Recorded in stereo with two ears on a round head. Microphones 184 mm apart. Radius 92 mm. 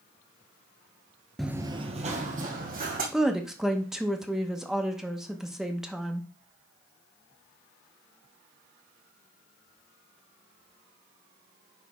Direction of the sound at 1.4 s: Centre (ahead or behind).